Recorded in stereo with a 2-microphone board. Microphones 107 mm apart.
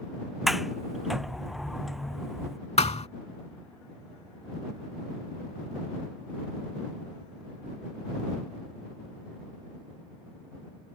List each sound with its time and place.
0.5 s a sliding door: centre (ahead or behind)
2.8 s a thud: 85° left